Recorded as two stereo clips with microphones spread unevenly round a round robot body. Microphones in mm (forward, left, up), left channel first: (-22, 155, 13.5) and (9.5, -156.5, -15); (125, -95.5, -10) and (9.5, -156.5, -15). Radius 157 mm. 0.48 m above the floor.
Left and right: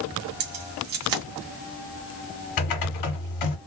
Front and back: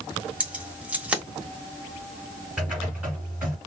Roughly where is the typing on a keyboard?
Behind left.